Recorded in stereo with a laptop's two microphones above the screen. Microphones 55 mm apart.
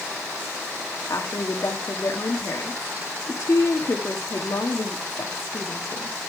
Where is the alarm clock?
I don't hear an alarm clock.